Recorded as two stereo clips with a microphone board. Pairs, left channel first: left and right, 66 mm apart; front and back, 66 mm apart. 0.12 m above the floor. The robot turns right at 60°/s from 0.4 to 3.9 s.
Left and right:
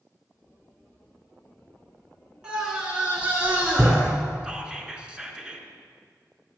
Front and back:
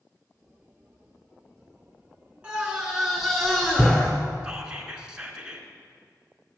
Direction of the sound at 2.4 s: 145° right.